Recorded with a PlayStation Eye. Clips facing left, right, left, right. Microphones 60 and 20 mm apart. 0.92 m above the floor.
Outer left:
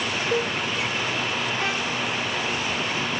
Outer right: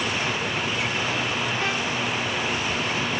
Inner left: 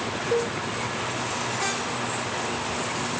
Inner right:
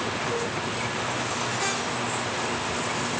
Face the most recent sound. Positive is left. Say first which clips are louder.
# outer left 4 dB, inner left 4 dB
turn(degrees=75)  # may be behind; listen again after turning